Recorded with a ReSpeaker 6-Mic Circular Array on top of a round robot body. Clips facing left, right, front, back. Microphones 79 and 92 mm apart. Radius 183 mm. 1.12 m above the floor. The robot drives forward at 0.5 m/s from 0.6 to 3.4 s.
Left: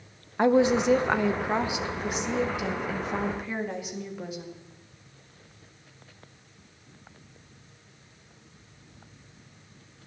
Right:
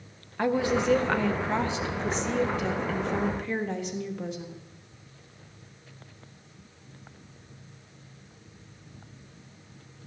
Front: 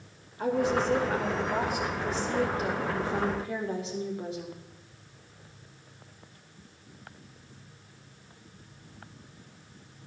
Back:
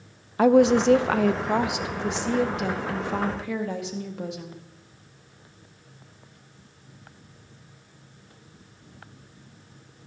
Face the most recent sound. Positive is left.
turn(degrees=175)